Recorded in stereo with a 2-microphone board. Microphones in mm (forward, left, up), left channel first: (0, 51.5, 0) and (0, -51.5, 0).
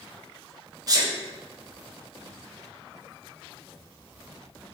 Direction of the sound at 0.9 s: 35° right (ahead or behind).